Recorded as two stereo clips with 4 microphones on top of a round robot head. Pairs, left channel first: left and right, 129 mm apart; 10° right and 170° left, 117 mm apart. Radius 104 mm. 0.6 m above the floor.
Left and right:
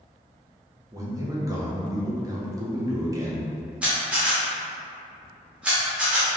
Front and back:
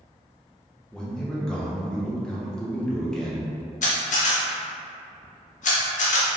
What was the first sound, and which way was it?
A man speaking, 85° right.